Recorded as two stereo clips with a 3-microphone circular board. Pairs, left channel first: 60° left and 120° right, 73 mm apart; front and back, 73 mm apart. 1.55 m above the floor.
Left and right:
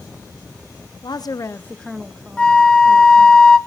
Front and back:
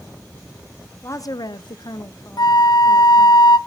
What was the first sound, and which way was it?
A woman speaking, 50° left.